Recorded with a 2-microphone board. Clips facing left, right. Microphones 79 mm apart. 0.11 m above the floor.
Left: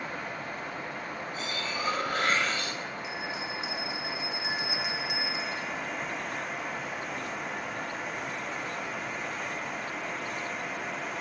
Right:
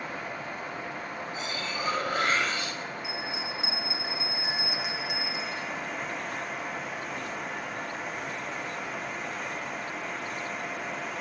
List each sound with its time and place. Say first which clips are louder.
1.3 s cutlery clinking: even; 15° right (ahead or behind), 2.5 m
3.0 s a bell: even; 5° right (ahead or behind), 1.5 m